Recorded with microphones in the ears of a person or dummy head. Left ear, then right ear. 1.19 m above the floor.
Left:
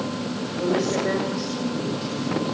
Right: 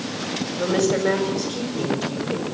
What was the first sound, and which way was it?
A woman speaking, 40° right (ahead or behind).